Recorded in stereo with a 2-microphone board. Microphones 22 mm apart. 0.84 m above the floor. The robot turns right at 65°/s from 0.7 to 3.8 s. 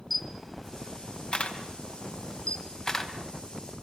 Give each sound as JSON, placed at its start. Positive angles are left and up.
{"t": 0.1, "sound": "a camera shutter", "side_deg": 10, "distance_m": 3.0}